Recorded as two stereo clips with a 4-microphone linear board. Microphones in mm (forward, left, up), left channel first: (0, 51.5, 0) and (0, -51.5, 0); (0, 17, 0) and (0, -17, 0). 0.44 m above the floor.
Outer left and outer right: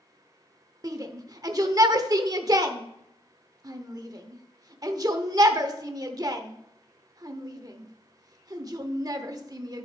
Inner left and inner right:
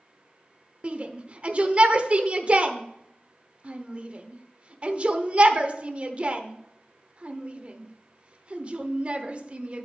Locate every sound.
0.8 s a shout: 35° right (ahead or behind), 0.8 m